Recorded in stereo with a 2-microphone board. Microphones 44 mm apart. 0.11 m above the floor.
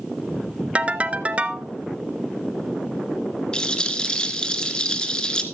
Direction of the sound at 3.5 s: 20° left (ahead or behind).